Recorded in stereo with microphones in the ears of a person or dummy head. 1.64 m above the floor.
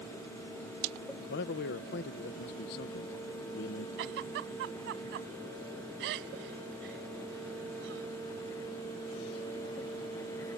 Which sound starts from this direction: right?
A giggle, at 4.0 s.